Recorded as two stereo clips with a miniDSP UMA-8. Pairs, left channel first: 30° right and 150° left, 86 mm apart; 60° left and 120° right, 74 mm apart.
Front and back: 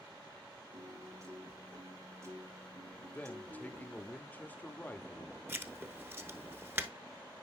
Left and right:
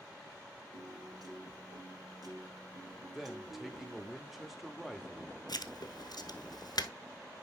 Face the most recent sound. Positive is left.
turn(degrees=85)